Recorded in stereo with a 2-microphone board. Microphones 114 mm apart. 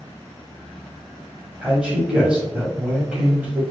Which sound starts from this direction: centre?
A man speaking, at 1.6 s.